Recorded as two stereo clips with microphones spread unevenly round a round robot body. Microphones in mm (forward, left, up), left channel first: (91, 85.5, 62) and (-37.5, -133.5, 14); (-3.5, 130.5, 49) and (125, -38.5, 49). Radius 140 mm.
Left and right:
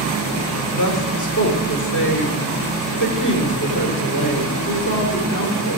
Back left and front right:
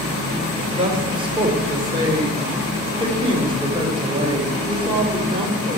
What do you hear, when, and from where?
0.7 s a woman speaking: 15° left, 4 m